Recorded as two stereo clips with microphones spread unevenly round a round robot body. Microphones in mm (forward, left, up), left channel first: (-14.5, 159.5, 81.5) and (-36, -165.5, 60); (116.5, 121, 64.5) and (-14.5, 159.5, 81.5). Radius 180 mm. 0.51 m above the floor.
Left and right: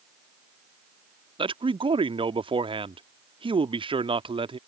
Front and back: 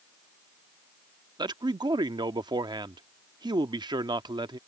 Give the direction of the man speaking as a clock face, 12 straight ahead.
5 o'clock.